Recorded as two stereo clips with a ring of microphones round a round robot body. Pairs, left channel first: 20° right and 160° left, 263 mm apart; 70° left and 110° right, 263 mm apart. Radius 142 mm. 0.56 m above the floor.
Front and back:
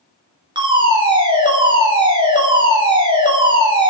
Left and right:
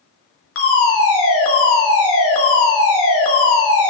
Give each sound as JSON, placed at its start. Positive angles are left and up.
{"t": 0.6, "sound": "a fire alarm", "azimuth_deg": 85, "distance_m": 3.0}